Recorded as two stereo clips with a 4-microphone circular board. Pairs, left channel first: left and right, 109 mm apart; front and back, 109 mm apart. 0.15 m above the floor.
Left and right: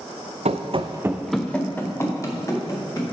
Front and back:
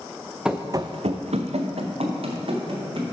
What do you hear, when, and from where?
0.5 s running footsteps: 95° right, 0.8 m; by 3.0 s 145° left, 3 m